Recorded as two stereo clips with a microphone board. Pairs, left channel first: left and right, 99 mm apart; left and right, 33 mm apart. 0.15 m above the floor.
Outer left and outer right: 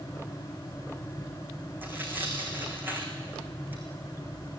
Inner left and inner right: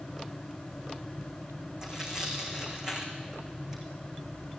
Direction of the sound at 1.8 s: 20° right (ahead or behind).